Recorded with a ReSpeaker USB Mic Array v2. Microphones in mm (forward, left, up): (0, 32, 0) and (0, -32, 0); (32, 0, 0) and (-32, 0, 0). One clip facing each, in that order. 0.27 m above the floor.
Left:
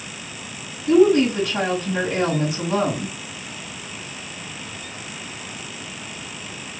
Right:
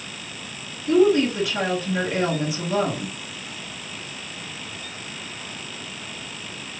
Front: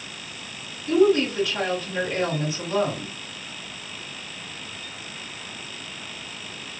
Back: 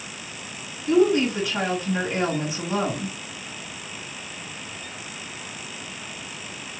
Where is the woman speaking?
115° left, 2.5 m.